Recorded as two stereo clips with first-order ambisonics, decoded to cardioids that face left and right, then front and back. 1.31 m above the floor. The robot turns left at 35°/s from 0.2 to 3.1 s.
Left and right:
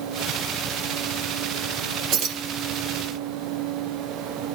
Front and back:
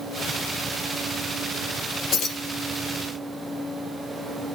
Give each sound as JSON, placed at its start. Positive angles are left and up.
{"t": 2.1, "sound": "keys jangling", "azimuth_deg": -55, "distance_m": 1.1}